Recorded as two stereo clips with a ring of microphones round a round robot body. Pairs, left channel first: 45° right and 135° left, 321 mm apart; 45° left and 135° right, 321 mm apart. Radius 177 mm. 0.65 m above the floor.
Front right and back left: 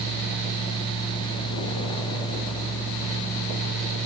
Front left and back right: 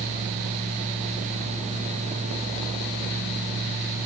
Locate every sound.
Only background noise.